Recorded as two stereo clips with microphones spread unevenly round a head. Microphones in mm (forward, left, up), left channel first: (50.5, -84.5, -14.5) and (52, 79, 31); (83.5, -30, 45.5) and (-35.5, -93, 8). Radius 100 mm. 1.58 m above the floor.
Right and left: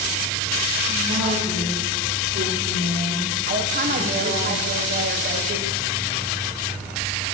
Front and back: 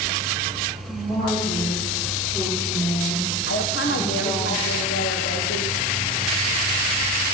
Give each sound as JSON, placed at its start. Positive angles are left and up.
{"t": 0.9, "sound": "a woman speaking", "azimuth_deg": 100, "distance_m": 4.5}
{"t": 3.5, "sound": "a woman speaking", "azimuth_deg": 55, "distance_m": 1.1}